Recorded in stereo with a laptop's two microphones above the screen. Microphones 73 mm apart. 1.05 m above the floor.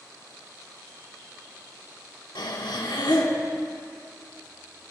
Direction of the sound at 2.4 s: 80° left.